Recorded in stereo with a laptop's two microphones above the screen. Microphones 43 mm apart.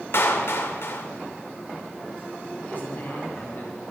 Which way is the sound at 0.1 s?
60° left (ahead or behind).